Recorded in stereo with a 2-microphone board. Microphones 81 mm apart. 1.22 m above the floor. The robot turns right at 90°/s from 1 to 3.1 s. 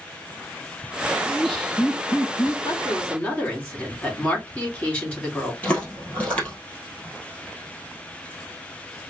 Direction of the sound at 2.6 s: 125° left.